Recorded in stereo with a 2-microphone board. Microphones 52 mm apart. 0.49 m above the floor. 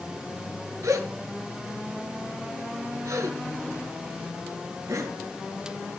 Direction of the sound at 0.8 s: 85° right.